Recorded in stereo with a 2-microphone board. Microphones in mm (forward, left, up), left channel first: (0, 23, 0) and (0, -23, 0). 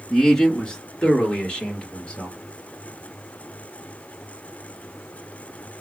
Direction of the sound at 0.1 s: 10° left (ahead or behind).